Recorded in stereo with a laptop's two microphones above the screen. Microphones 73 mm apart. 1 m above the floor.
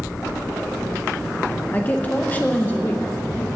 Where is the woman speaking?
25° left (ahead or behind), 0.8 m.